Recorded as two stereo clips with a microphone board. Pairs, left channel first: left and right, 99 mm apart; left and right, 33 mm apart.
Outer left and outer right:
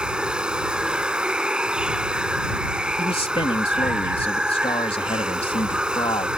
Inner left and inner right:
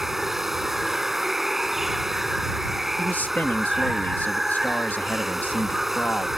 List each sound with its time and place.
0.0 s running water: 10° right (ahead or behind)
3.0 s a man speaking: 70° left (ahead or behind)